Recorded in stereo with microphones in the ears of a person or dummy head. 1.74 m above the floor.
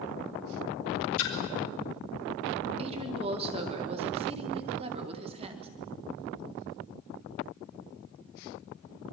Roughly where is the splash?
Left.